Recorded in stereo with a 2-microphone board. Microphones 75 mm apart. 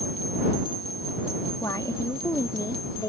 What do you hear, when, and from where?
1.6 s a woman speaking: 50° left (ahead or behind); by 3.1 s 55° left (ahead or behind)